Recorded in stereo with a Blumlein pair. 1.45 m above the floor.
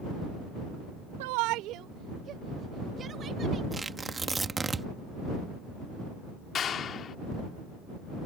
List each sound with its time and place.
1.2 s a shout: 50° right; by 3.6 s 20° right
3.7 s tearing paper: 10° right
6.5 s a clap: 25° left